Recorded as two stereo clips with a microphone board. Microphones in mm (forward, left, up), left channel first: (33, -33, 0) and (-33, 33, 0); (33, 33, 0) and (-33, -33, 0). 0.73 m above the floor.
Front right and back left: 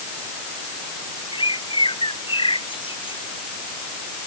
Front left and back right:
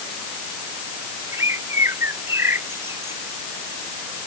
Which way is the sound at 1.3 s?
70° right.